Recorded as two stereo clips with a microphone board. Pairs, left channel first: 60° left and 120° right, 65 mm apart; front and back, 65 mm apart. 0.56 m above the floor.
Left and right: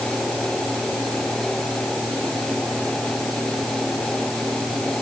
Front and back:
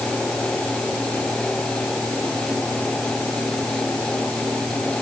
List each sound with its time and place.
Only background noise.